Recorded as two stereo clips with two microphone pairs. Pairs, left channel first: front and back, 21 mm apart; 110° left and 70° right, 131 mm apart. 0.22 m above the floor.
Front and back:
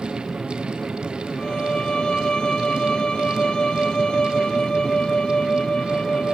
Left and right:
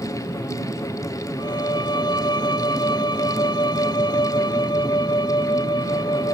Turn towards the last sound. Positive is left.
turn(degrees=50)